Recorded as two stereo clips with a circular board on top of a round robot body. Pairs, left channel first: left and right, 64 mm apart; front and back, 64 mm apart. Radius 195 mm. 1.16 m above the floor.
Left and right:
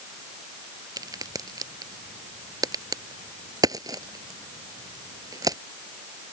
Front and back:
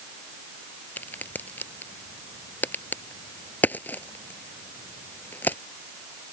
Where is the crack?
65° right.